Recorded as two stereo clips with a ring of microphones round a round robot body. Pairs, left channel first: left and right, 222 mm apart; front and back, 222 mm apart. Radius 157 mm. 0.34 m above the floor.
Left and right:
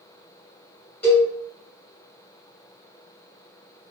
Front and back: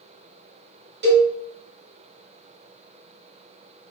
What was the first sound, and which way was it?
A cowbell, 175° left.